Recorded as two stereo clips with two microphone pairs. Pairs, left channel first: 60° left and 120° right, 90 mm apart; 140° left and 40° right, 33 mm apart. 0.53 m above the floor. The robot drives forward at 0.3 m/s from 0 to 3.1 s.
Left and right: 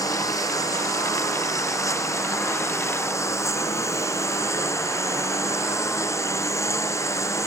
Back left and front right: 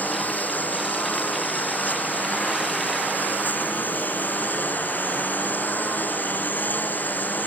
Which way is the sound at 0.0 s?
110° left.